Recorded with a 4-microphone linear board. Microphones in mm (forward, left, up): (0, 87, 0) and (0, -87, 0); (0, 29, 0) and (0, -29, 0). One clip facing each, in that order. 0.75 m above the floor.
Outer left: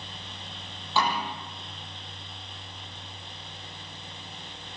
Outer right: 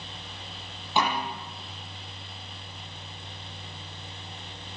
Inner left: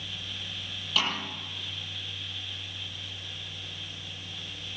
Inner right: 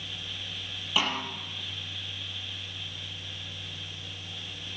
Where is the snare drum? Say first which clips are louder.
Outer right 1 dB, inner right 1 dB; 20° right (ahead or behind), 9 m.